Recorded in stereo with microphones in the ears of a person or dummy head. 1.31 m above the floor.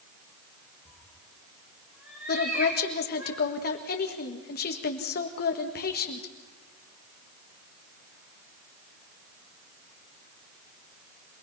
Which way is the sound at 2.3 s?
50° left (ahead or behind).